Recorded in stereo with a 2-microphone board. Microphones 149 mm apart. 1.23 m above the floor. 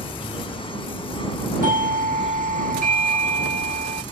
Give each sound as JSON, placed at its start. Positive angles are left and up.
{"t": 0.0, "sound": "an insect", "side_deg": 40}
{"t": 1.6, "sound": "a doorbell", "side_deg": -70}